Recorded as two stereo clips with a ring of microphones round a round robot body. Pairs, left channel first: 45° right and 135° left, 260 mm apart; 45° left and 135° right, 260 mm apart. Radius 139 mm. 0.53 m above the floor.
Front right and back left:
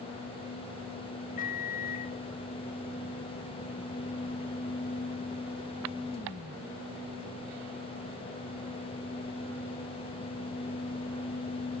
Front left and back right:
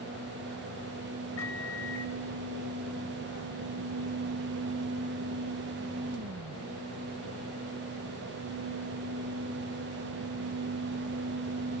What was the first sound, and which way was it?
A microwave, 15° left.